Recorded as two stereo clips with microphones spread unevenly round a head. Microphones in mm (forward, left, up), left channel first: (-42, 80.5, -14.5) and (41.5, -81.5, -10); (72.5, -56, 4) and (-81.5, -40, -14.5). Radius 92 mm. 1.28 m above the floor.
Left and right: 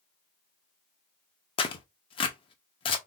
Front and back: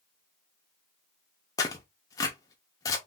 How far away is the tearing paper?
About 0.6 m.